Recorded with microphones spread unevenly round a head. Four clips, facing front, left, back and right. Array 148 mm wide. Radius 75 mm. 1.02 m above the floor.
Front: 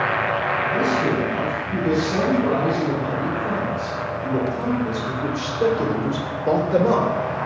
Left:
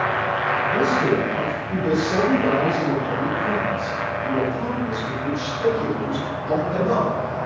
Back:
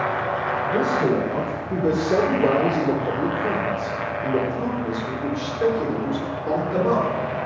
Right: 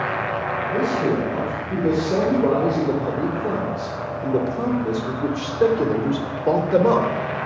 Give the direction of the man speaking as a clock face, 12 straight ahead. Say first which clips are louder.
Even, back 2 dB; 5 o'clock.